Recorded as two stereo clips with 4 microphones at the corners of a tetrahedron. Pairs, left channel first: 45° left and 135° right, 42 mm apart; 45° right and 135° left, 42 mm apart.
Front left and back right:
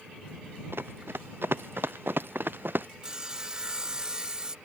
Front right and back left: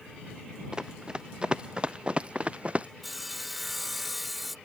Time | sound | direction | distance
0.7 | running footsteps | 155° right | ?
3.0 | sawing | 140° right | ?